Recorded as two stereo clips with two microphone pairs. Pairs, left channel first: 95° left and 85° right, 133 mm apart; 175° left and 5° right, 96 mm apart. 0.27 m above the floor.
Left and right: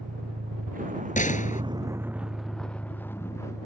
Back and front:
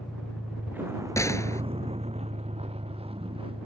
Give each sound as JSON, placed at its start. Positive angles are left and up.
{"t": 0.0, "sound": "a vehicle", "azimuth_deg": -95}
{"t": 1.2, "sound": "a gunshot", "azimuth_deg": 115}